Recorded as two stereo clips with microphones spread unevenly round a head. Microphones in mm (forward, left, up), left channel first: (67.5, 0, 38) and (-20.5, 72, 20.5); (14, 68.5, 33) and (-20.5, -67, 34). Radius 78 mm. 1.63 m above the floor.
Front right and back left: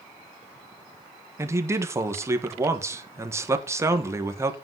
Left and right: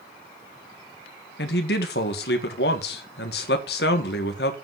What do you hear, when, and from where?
1.4 s a man speaking: 75° left, 1.7 m